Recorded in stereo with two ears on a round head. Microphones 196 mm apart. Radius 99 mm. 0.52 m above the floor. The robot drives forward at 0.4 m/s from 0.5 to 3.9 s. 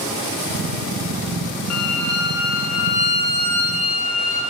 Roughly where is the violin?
Left.